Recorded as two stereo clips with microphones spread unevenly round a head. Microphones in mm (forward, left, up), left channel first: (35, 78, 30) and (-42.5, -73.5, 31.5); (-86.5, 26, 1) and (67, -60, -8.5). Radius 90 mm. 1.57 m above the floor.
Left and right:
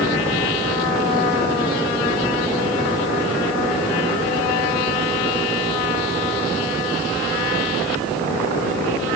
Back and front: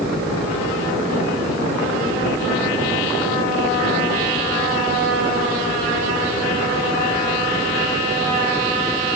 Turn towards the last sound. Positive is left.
No sound to turn to.